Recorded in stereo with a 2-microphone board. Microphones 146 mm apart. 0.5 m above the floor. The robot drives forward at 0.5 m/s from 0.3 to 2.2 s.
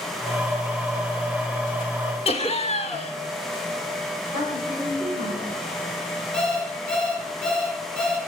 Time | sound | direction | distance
2.2 | laughter | 45° left (ahead or behind) | 1.3 m
4.3 | a woman speaking | 65° left (ahead or behind) | 4 m
6.3 | an alarm clock | 5° left (ahead or behind) | 4 m